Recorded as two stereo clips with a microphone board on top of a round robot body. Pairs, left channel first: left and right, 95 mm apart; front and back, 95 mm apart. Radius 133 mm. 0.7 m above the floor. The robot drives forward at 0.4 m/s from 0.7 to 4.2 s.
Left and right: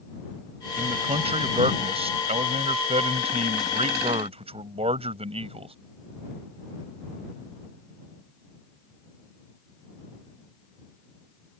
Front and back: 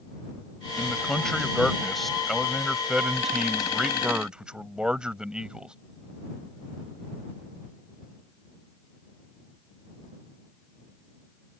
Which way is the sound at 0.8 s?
85° right.